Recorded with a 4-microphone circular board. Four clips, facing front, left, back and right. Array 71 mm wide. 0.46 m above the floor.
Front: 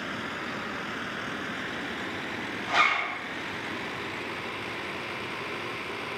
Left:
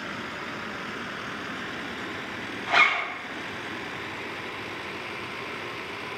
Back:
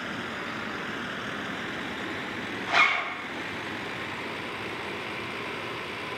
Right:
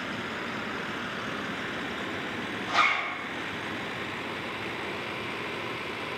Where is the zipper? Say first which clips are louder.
Left 3 dB, back 1 dB; 110° left, 0.5 m.